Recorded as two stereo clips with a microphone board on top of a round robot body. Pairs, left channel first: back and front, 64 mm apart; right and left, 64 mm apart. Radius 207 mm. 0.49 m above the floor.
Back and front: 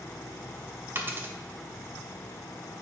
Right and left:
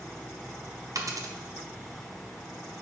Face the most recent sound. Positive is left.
turn(degrees=55)